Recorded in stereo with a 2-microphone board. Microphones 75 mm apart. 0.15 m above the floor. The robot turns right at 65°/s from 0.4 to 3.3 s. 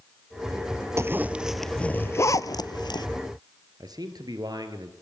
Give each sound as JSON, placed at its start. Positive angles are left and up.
{"t": 1.0, "sound": "a zipper", "side_deg": -40, "distance_m": 0.7}
{"t": 3.8, "sound": "a man speaking", "side_deg": -60, "distance_m": 3.0}